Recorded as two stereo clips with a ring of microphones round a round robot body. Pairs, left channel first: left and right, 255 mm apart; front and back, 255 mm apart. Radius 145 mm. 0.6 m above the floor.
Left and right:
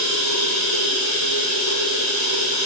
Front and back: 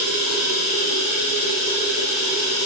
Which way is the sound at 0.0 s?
95° left.